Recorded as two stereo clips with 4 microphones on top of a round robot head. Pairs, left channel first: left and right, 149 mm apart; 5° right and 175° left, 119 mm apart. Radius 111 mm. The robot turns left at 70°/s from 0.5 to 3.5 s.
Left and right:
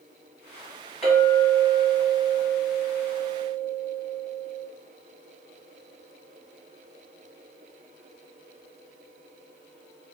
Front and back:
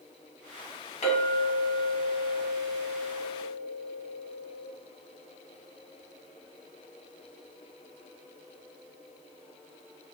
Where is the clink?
Straight ahead, 1.6 m; by 4.7 s 175° right, 1.6 m.